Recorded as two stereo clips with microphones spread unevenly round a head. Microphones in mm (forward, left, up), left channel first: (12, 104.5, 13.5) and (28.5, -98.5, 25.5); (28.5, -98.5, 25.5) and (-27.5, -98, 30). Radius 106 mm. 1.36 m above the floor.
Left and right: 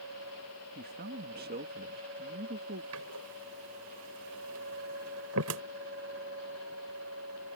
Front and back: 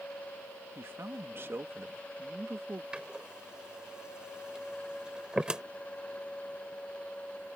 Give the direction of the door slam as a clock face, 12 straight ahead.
4 o'clock.